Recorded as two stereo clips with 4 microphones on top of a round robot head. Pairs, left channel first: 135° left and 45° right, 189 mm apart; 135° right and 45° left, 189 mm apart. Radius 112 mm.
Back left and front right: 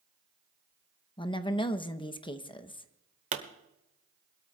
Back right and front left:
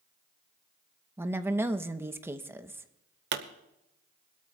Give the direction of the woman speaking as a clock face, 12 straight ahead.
8 o'clock.